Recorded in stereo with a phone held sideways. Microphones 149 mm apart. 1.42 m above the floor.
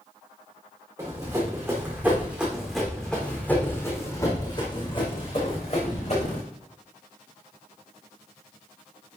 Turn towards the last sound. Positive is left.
turn(degrees=50)  # may be behind; listen again after turning